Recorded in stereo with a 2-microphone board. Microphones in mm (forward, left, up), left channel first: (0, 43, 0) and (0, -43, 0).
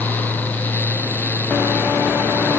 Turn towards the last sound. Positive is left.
No sound to turn to.